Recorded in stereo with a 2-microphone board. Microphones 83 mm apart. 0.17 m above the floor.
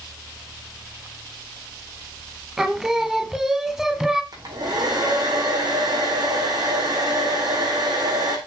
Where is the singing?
5° right (ahead or behind), 1.0 m.